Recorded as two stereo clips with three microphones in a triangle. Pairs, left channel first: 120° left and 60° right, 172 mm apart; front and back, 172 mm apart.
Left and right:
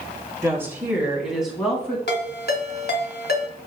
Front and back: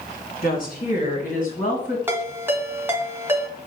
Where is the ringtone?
105° left, 1.5 m.